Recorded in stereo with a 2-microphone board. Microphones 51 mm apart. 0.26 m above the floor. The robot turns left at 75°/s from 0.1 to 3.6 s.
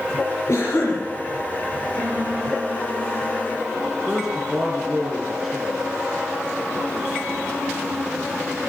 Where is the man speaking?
Centre (ahead or behind), 3 m.